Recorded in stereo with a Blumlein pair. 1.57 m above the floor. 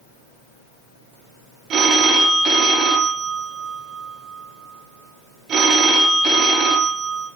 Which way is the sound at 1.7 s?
30° right.